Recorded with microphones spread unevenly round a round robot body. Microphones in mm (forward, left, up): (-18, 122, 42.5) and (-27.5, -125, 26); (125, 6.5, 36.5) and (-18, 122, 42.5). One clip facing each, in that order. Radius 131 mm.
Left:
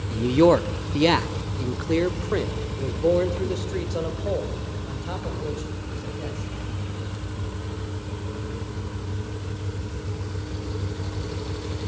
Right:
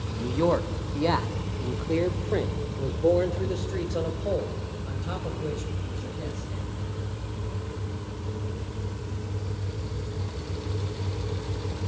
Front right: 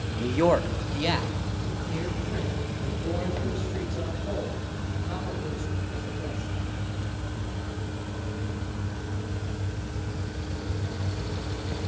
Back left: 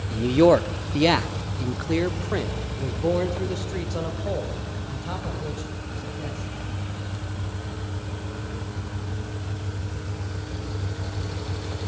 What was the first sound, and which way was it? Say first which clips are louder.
A man speaking: left 8 dB, back left 6 dB; 80° left.